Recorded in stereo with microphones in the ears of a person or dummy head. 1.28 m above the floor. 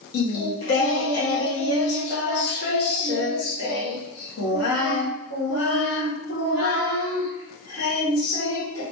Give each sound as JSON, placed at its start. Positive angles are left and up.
{"t": 0.1, "sound": "singing", "side_deg": 70, "distance_m": 1.4}